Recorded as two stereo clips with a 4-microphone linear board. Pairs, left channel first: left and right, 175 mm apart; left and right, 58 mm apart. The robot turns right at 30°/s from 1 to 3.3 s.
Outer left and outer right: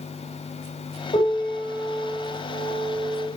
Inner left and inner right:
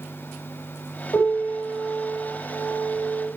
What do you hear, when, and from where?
1.1 s a piano: 35° left, 5 m; by 3.3 s 100° left, 5 m